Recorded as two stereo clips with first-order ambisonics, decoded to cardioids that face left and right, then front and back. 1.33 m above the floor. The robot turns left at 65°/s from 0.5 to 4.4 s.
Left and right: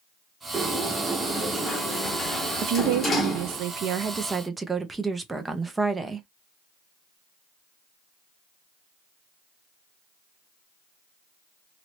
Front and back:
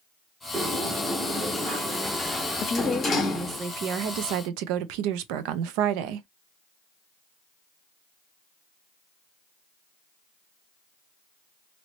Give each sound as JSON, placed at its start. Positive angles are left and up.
{"t": 0.5, "sound": "a sliding door", "azimuth_deg": -160, "distance_m": 1.0}
{"t": 2.6, "sound": "a woman speaking", "azimuth_deg": -55, "distance_m": 0.7}